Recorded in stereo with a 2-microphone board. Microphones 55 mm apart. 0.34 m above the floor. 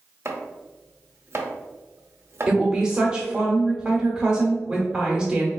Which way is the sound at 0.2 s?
50° right (ahead or behind).